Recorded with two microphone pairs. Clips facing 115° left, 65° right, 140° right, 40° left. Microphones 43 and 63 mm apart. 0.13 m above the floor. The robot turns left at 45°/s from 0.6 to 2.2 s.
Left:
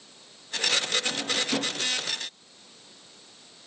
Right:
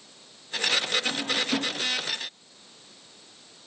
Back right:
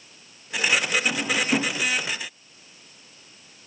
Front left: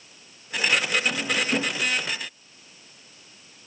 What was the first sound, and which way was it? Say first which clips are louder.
A drawer: right 1 dB, back right 1 dB; 130° right.